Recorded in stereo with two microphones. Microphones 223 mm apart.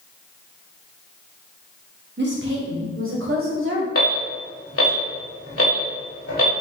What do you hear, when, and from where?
2.2 s a woman speaking: 50° right (ahead or behind), 1.1 m; by 3.9 s 60° right (ahead or behind), 2 m
4.0 s an alarm: 75° left (ahead or behind), 1.5 m